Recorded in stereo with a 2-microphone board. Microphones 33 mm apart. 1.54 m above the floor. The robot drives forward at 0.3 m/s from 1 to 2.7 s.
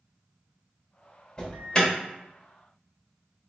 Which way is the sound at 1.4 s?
20° left (ahead or behind).